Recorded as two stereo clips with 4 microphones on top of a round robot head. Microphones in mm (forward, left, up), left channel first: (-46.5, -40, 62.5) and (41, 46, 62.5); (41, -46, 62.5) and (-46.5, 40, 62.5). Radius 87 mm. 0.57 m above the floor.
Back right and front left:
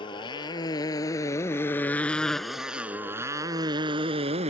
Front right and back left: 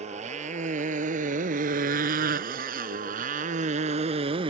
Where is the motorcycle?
170° left; by 4.5 s 85° left.